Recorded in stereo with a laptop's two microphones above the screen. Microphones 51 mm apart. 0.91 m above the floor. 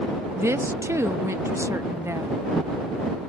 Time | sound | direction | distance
0.4 | a woman speaking | 65° right (ahead or behind) | ?